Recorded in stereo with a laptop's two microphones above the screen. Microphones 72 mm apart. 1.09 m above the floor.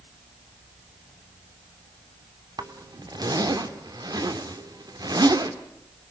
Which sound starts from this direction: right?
A zipper, at 2.6 s.